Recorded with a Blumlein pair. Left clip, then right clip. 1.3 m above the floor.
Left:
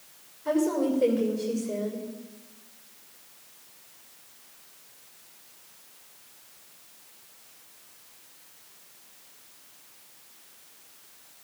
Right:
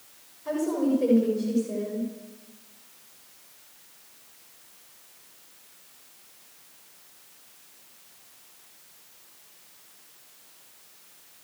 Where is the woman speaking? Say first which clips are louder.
Left 1 dB; 20° left, 6 m.